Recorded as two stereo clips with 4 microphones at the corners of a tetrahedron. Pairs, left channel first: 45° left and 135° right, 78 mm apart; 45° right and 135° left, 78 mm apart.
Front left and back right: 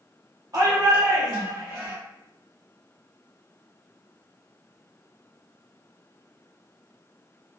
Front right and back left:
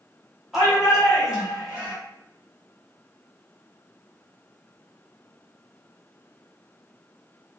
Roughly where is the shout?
Behind right.